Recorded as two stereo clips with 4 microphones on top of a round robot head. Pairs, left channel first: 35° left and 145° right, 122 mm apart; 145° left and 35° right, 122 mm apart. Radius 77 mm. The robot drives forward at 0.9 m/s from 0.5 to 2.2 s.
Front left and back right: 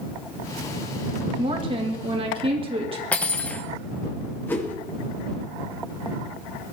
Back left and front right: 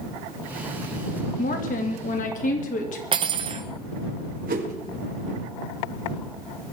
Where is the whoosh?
40° right, 1.9 m.